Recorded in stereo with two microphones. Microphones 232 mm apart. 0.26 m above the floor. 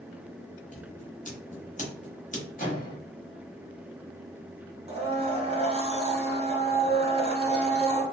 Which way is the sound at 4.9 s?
25° right (ahead or behind).